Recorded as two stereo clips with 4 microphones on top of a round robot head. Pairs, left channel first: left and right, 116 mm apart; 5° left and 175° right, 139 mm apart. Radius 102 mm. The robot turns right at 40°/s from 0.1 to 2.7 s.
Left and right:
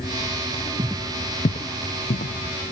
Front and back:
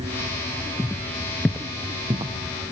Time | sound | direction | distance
0.8 | footsteps | 95° right | 0.6 m